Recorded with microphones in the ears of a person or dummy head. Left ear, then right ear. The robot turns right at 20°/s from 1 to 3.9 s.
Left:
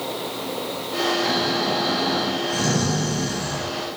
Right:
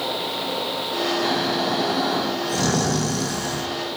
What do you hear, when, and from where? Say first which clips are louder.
1.2 s snoring: even; 160° right, 0.6 m; by 3.7 s 110° right, 0.6 m